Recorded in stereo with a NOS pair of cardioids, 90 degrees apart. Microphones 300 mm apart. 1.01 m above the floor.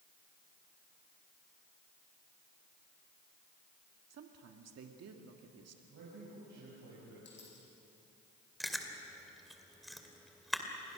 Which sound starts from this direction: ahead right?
A woman speaking, at 4.1 s.